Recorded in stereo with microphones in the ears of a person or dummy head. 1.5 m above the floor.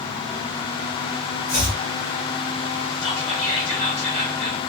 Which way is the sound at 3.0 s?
50° left (ahead or behind).